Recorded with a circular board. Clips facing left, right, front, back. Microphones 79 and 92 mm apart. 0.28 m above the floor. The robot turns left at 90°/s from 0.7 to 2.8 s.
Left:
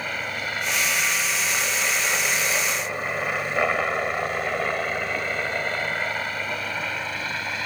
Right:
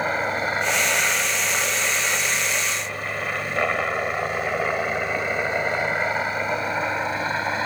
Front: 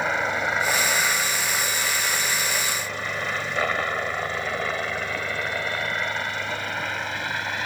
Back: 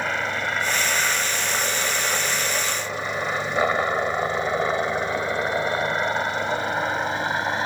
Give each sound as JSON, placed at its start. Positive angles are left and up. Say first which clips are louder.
{"t": 0.0, "sound": "a helicopter", "louder": "right 6 dB, front 1 dB", "azimuth_deg": -75}